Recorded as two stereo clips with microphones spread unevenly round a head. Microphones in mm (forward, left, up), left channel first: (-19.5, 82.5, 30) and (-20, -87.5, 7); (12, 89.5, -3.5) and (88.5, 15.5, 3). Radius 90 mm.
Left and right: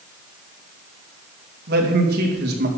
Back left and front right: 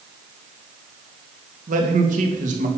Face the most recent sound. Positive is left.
turn(degrees=-50)